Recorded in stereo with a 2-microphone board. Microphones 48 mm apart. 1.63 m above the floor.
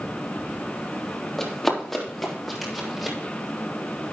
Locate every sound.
1.4 s running footsteps: 5° left (ahead or behind), 3.5 m; by 3.2 s 5° right (ahead or behind), 4.5 m